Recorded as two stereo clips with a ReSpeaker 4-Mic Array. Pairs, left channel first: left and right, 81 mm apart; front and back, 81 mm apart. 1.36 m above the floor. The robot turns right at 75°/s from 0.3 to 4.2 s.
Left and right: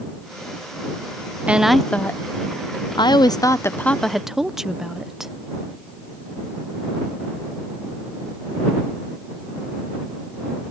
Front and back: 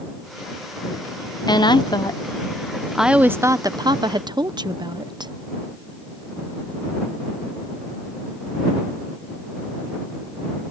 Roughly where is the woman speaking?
Ahead.